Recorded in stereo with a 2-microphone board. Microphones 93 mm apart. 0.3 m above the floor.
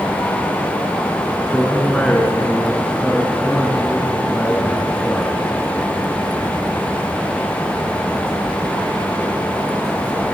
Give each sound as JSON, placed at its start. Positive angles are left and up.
{"t": 1.5, "sound": "a man speaking", "side_deg": 15, "distance_m": 3.0}